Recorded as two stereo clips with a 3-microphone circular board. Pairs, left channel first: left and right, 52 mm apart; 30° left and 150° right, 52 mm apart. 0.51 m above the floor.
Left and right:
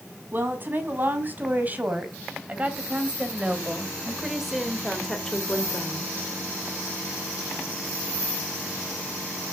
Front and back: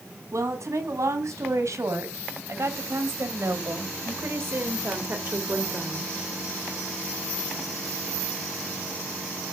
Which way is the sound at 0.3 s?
140° right.